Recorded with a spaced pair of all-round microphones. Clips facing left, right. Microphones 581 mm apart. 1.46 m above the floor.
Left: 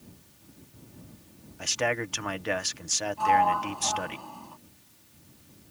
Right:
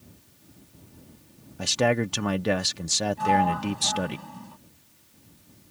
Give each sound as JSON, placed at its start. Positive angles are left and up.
{"t": 1.6, "sound": "a man speaking", "side_deg": -70}
{"t": 3.2, "sound": "a sliding door", "side_deg": -45}